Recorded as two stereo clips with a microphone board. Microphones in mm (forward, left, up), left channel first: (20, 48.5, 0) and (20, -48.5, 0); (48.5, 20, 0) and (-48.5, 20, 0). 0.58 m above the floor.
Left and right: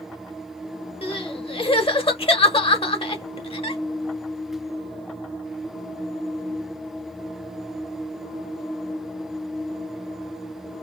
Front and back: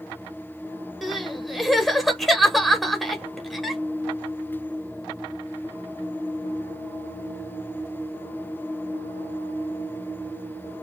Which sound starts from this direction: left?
Crying, at 1.0 s.